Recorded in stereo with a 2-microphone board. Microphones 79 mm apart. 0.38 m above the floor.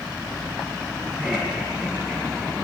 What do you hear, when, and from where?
1.2 s laughter: 5° right (ahead or behind), 7.5 m